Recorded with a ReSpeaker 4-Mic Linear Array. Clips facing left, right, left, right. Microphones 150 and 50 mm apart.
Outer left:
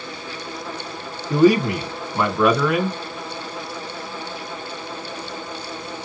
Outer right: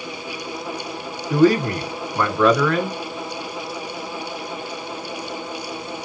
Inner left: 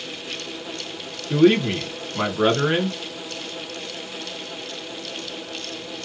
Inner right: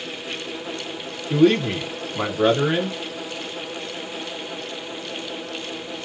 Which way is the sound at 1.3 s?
15° left (ahead or behind).